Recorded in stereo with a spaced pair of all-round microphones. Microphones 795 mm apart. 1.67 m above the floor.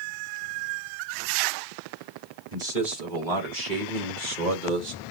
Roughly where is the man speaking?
Right.